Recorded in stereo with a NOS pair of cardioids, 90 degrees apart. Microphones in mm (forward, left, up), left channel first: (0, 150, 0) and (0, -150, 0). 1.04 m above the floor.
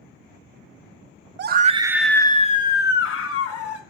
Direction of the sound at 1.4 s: 40° right.